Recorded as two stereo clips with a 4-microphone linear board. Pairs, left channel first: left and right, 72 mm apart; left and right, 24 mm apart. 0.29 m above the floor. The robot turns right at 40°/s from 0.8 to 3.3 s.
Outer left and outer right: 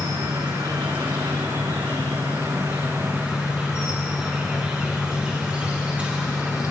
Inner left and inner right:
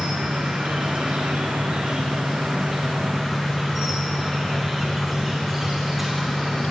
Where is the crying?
I don't hear crying.